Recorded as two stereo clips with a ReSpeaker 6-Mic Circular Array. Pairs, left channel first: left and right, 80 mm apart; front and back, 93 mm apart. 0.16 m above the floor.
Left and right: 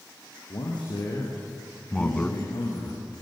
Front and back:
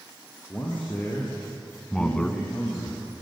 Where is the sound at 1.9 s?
55° left, 1.2 m.